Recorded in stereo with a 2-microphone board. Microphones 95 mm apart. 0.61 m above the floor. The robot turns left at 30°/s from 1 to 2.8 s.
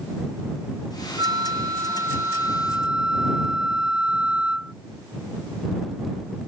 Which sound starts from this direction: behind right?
A flute, at 1.2 s.